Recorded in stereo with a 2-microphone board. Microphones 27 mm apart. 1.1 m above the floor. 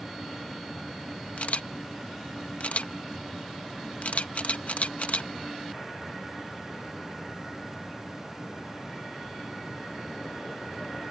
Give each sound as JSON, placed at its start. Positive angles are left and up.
{"t": 1.4, "sound": "a camera shutter", "side_deg": 60}